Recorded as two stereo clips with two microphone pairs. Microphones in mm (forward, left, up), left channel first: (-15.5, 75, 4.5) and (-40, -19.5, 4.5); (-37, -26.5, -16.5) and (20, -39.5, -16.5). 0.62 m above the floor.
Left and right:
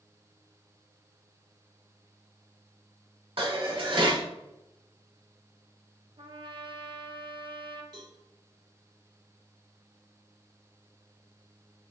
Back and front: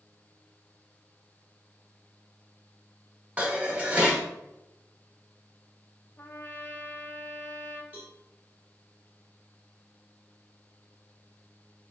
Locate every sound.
3.4 s dishes clattering: 80° right, 1.0 m
6.2 s a trumpet: 140° right, 0.6 m
7.9 s a cowbell: 75° right, 1.7 m